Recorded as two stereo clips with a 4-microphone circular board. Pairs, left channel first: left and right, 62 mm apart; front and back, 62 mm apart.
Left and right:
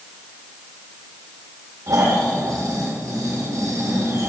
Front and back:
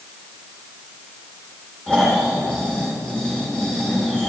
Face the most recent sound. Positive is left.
turn(degrees=-75)